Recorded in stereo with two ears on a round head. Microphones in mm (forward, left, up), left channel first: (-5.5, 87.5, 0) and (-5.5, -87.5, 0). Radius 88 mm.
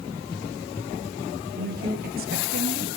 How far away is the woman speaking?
About 1.6 m.